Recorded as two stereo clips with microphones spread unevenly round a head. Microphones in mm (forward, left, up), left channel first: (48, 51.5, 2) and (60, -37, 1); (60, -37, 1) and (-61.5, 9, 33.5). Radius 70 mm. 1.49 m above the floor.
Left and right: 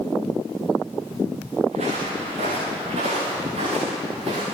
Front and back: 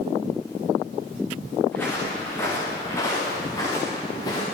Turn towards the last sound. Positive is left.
turn(degrees=-85)